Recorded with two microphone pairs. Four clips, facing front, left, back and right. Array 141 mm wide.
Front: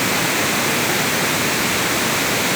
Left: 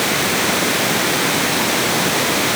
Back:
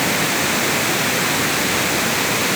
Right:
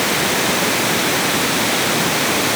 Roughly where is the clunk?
No clunk in this recording.